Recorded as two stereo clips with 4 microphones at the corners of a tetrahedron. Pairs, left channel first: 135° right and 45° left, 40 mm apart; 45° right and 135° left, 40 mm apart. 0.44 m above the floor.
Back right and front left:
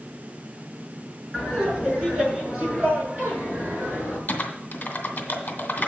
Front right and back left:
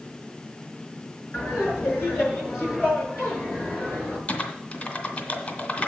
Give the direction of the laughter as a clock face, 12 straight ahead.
1 o'clock.